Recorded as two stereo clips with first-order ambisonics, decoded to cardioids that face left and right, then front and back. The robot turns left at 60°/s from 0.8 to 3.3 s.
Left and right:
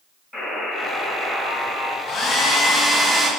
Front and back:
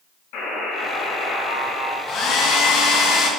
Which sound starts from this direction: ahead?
A buzzer, at 0.3 s.